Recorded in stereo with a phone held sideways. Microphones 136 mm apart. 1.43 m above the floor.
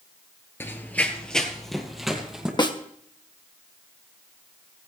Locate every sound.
0.6 s running footsteps: 15° left (ahead or behind), 1.5 m; by 2.5 s 5° right (ahead or behind), 3 m
2.6 s a snare drum: 35° left (ahead or behind), 1.1 m